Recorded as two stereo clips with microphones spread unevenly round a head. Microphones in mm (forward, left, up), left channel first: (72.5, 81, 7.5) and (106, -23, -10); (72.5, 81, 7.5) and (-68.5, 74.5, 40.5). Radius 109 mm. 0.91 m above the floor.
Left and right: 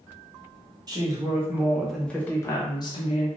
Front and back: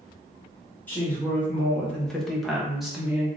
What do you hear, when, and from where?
0.9 s a woman speaking: 55° right, 1.0 m; by 3.3 s 85° left, 1.0 m